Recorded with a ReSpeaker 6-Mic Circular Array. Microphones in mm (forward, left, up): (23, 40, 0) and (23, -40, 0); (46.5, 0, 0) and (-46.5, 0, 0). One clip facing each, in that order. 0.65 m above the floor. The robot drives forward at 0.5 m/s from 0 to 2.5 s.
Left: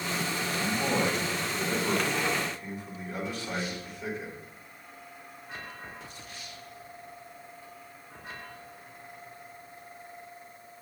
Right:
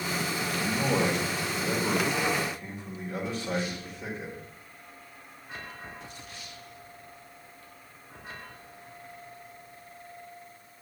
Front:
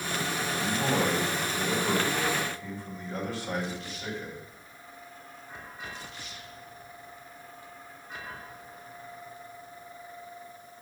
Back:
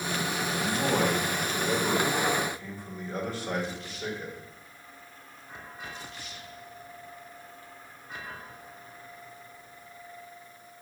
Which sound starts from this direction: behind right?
A man speaking, at 0.6 s.